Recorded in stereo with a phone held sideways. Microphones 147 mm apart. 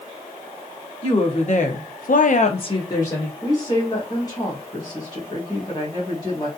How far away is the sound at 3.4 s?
About 1.2 m.